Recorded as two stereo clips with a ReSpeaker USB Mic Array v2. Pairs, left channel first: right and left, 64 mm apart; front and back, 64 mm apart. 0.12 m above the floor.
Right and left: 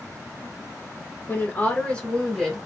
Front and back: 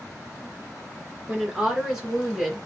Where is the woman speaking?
105° right, 1.9 m; by 2.7 s 155° left, 1.6 m.